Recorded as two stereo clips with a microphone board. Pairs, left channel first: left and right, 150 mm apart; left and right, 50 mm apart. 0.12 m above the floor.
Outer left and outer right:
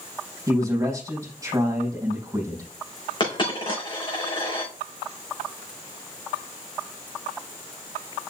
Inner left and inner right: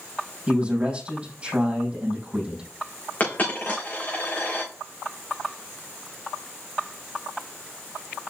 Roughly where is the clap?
I don't hear a clap.